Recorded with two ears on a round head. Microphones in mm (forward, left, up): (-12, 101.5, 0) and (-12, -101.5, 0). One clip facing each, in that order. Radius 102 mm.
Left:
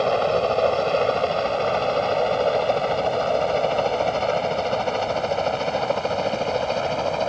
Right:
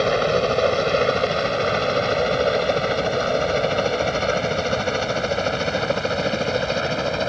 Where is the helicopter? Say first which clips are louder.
Right 1 dB; 25° right (ahead or behind); by 7.3 s 20° right (ahead or behind).